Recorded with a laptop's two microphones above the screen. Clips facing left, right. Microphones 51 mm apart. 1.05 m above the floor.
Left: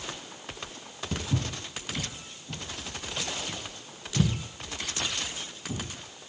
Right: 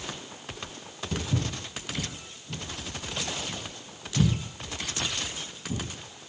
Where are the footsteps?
45° left (ahead or behind), 1.4 m; by 5.8 s 55° left (ahead or behind), 4 m.